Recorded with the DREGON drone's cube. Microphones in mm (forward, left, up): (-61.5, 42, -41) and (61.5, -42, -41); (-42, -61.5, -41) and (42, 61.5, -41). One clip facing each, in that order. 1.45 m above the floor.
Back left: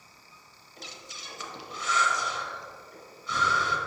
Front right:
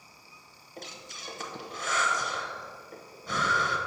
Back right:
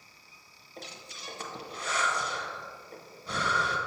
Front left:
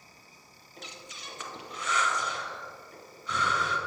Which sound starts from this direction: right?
Breathing, at 0.8 s.